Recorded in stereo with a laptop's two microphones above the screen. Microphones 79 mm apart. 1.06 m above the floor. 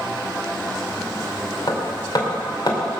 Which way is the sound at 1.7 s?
55° left (ahead or behind).